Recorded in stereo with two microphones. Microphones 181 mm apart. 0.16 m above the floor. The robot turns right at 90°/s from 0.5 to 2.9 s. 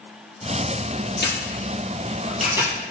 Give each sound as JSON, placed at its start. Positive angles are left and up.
{"t": 1.2, "sound": "a camera shutter", "side_deg": 65, "distance_m": 4.5}